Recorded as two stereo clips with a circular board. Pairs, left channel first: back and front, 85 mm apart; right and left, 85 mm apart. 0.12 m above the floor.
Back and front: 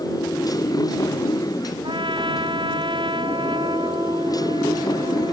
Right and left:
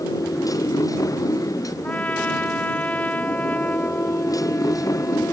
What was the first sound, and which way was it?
A motorcycle, 140° right.